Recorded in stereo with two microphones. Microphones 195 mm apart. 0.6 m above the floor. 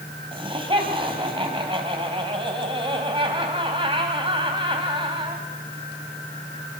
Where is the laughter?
25° right (ahead or behind), 3 m.